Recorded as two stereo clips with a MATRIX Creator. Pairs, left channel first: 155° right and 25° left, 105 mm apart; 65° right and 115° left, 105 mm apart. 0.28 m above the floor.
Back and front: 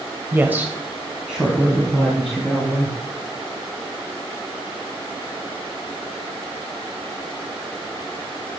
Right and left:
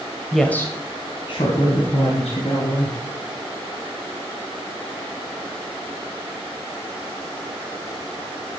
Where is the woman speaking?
30° left, 0.9 m; by 3.0 s 65° right, 3.5 m.